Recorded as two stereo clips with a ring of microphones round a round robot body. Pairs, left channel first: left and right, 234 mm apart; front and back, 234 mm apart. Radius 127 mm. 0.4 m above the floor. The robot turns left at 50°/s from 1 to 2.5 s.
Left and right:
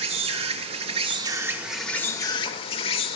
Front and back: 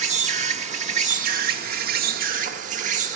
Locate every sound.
0.0 s an insect: 140° right, 1.1 m; by 3.2 s 145° left, 1.1 m